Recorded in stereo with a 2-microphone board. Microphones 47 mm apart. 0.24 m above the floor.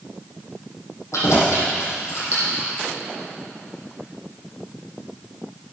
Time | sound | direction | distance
1.1 | keys jangling | 70° left (ahead or behind) | 7 m